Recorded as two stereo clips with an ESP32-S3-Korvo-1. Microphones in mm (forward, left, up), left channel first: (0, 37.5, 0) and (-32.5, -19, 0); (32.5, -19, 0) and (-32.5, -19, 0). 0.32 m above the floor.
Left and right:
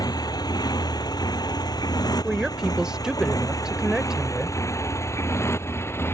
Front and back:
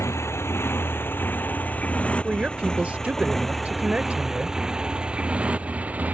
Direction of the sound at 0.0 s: 45° left.